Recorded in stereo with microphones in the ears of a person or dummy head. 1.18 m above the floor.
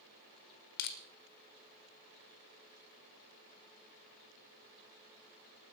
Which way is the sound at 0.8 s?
60° left (ahead or behind).